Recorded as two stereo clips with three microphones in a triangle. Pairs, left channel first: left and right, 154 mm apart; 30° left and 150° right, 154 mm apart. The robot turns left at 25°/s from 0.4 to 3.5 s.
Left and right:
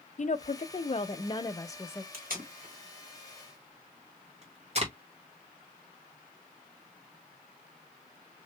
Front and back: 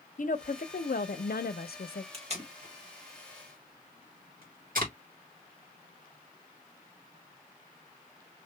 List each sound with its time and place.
0.2 s a woman speaking: 55° left, 0.6 m; by 2.0 s 15° left, 0.6 m
2.1 s tape being pulled: 105° right, 2 m; by 4.9 s 135° right, 2 m